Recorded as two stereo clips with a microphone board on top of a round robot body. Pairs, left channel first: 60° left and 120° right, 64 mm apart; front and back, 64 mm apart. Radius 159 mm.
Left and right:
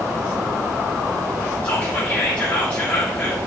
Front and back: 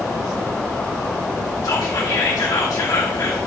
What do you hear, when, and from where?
1.6 s whispering: 10° right, 1.7 m